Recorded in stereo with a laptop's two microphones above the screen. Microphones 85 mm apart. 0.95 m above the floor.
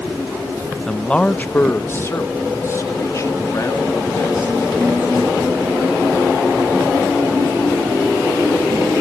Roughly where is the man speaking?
Centre.